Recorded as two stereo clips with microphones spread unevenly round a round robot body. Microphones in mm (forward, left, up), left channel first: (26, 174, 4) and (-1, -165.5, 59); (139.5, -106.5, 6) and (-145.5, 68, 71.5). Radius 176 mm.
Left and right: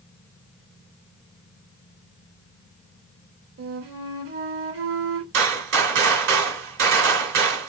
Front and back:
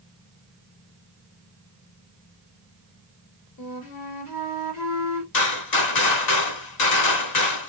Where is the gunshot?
50° right, 2 m.